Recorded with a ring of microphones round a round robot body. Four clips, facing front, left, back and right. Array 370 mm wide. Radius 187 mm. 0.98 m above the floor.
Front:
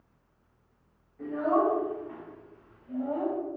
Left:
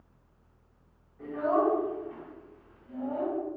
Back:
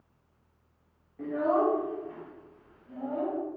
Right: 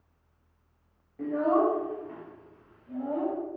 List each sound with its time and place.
1.2 s a child speaking: 120° right, 0.8 m; by 3.4 s 50° right, 2.5 m